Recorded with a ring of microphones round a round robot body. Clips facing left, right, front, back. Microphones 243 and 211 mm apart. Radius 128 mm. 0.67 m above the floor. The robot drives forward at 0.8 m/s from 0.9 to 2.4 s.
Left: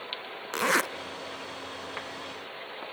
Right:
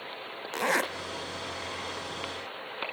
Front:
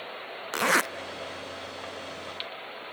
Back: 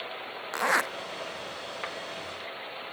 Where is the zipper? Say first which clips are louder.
Left 1 dB, front 3 dB; 25° left, 0.6 m.